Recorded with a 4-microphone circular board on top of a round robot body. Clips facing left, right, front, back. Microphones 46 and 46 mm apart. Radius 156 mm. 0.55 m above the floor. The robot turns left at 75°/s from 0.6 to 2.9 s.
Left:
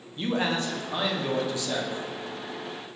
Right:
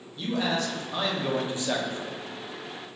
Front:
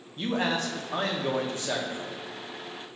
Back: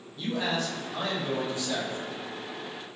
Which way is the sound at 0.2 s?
40° left.